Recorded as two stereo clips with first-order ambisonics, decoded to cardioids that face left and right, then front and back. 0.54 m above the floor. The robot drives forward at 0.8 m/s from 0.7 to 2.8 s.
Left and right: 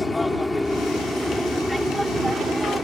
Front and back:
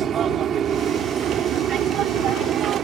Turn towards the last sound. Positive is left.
turn(degrees=-170)